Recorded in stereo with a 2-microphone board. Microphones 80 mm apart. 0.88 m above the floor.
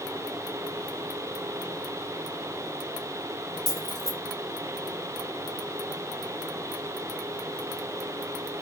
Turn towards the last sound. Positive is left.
turn(degrees=5)  # may be behind; listen again after turning